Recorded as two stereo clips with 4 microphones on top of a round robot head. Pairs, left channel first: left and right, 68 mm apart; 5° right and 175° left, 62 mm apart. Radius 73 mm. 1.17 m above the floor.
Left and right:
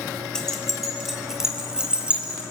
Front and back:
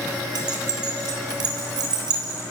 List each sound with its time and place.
0.3 s keys jangling: 170° left, 3 m; by 2.4 s 165° right, 5 m